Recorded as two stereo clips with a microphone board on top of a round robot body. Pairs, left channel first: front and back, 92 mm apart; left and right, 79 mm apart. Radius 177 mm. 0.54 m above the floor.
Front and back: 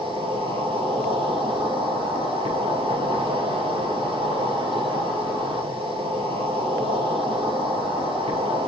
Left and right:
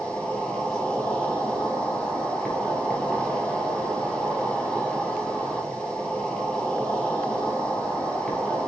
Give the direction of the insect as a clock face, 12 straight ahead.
6 o'clock.